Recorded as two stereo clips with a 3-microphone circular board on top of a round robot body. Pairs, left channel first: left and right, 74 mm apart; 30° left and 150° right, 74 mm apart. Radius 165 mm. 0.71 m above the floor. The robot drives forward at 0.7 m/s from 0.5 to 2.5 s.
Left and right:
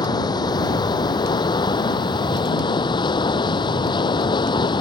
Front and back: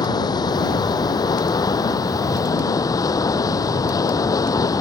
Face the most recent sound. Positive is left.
turn(degrees=70)